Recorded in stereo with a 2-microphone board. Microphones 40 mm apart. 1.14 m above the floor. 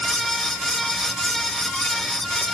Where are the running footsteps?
No running footsteps in this recording.